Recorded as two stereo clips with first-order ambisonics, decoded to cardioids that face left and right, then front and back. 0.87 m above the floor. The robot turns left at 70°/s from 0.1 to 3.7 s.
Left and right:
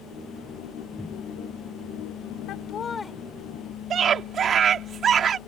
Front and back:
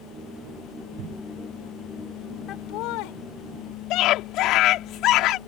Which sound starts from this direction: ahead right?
A scream, at 3.9 s.